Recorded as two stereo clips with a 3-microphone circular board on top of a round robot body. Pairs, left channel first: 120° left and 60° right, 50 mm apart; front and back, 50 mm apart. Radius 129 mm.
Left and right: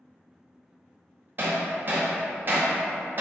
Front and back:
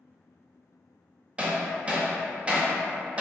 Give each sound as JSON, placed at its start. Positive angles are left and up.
{"t": 1.4, "sound": "hammering", "azimuth_deg": -110, "distance_m": 0.7}